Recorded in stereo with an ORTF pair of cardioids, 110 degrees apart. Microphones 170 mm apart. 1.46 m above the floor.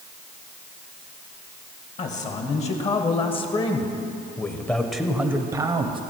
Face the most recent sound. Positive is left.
turn(degrees=-35)